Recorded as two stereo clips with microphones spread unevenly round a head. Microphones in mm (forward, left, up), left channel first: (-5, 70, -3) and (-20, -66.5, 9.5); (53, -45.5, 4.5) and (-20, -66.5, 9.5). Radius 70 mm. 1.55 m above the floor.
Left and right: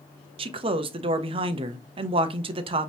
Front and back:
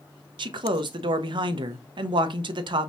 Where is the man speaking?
150° right, 0.5 m.